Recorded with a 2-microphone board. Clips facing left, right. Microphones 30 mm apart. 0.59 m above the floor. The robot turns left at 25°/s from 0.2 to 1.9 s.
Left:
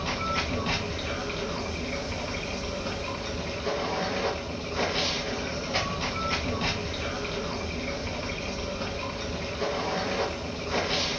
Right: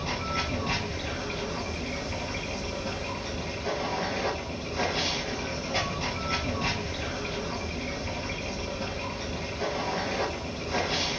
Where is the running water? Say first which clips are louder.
Left 2 dB; 80° left, 1.4 m; by 11.2 s 40° left, 1.4 m.